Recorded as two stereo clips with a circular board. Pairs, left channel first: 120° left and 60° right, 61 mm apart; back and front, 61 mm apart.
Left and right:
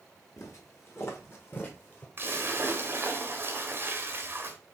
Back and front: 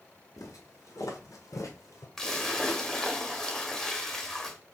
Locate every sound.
0.4 s footsteps: 155° left, 1.7 m; by 2.1 s 175° right, 1.1 m
2.2 s a splash: 95° right, 0.9 m